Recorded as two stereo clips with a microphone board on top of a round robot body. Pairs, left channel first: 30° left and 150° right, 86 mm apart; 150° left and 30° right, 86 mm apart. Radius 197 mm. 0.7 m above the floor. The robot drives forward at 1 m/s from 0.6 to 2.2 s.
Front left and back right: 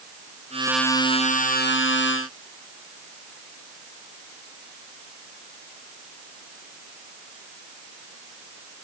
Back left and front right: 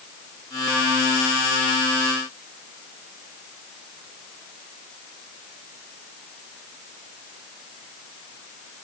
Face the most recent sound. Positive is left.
No sound to turn to.